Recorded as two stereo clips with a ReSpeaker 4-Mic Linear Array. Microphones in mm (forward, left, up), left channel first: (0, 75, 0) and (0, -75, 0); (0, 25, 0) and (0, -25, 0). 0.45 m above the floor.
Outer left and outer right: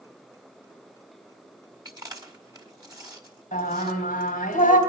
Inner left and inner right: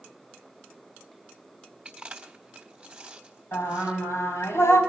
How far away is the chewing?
About 1.4 m.